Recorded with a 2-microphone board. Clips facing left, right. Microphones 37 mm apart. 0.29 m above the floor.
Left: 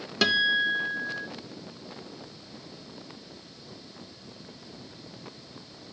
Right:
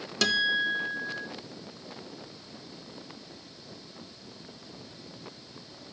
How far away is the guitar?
About 0.5 m.